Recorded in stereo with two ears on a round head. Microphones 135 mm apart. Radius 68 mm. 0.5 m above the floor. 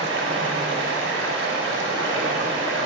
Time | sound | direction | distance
0.0 | running water | 85° right | 0.7 m